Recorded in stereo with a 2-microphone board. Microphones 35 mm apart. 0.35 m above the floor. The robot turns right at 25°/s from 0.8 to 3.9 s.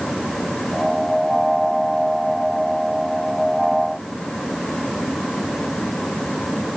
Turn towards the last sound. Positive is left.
No sound to turn to.